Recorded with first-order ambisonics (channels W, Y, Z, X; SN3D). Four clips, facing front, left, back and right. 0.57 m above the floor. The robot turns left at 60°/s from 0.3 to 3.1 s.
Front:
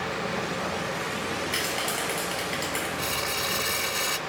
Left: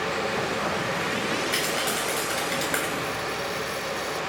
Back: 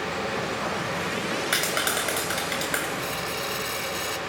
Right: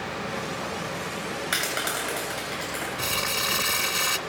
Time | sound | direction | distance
1.5 | a clap | 140° right | 8 m
3.0 | crumpling | 70° right | 1.5 m